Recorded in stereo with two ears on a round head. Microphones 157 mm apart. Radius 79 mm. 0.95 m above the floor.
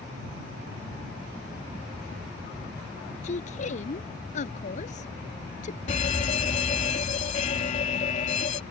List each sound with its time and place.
3.2 s a woman speaking: 45° left (ahead or behind)
5.9 s a fire alarm: 40° left (ahead or behind)